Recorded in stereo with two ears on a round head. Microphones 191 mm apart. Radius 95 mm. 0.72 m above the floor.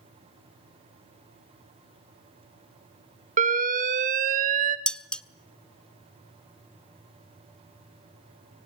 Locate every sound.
3.4 s an alarm: 40° right (ahead or behind), 1.5 m
4.9 s dishes clattering: 5° left (ahead or behind), 0.5 m